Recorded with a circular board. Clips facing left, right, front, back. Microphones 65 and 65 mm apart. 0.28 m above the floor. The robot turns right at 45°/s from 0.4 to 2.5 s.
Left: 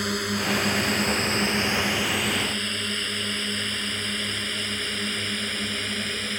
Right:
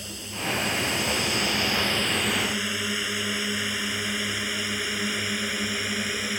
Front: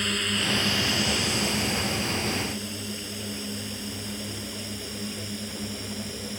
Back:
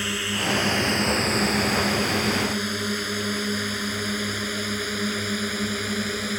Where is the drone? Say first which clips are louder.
Left 7 dB, back 1 dB; 95° left; by 6.4 s 170° right.